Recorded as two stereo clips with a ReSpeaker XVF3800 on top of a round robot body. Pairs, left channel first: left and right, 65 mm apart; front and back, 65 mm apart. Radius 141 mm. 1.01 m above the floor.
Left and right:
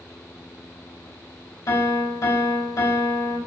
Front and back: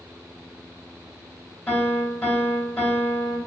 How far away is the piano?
About 2.5 m.